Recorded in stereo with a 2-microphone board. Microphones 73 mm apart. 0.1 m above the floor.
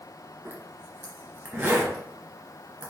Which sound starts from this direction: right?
A zipper, at 0.5 s.